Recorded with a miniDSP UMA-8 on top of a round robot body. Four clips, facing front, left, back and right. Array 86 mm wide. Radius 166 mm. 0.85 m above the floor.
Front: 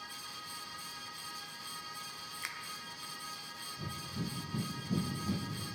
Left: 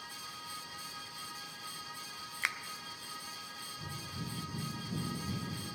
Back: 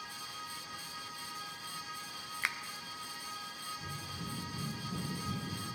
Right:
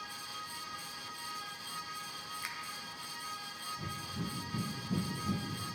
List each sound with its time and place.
2.4 s a finger snap: 130° left, 0.5 m
3.8 s breathing: 35° right, 1.0 m